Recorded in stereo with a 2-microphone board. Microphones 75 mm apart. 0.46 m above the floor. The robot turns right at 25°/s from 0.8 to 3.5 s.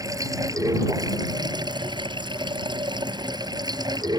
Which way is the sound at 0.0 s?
130° right.